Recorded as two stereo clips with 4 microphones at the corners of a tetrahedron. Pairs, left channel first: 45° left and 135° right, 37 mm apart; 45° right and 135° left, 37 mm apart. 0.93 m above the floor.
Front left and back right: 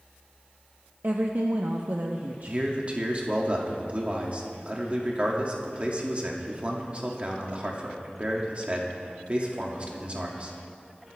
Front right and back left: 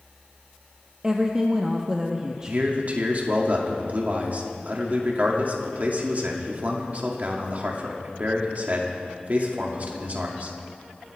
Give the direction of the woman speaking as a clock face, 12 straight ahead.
5 o'clock.